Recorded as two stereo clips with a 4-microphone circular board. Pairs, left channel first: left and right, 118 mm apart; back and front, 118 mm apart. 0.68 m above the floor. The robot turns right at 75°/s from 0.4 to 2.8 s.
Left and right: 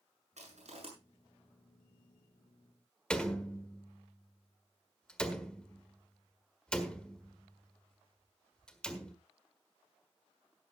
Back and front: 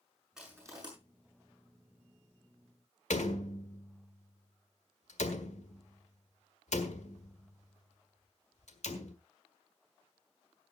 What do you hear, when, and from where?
0.4 s crushing: 85° right, 7 m; by 0.9 s 50° right, 7 m
3.1 s a door slam: 175° left, 1.6 m